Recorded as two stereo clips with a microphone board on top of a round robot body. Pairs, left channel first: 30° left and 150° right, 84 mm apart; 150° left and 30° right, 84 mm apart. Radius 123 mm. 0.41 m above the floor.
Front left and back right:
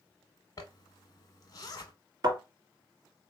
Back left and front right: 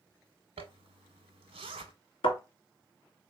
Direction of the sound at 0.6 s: 20° right.